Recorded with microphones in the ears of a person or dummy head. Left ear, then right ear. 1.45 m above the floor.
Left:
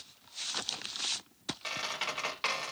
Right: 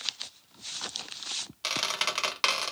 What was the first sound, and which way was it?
A squeak, 50° right (ahead or behind).